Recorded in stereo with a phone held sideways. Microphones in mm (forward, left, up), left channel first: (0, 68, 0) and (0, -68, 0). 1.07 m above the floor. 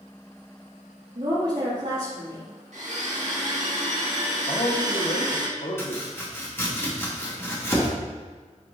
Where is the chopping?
20° left (ahead or behind), 1.5 m.